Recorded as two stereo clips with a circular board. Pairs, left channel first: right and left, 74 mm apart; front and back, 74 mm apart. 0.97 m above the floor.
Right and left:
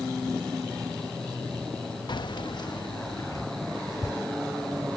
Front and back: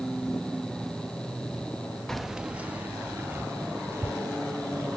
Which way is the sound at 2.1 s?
85° right.